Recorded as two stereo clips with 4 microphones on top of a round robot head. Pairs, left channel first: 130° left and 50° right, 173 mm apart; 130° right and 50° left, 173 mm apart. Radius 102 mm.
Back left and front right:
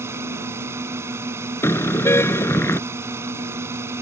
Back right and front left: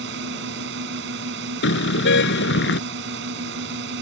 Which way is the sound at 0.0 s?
30° left.